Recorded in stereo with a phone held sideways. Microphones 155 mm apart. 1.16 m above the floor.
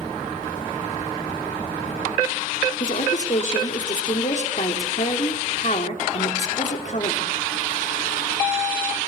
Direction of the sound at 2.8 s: 55° left (ahead or behind).